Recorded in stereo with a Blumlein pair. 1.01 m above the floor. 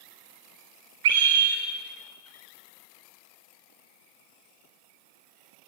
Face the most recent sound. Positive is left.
turn(degrees=-50)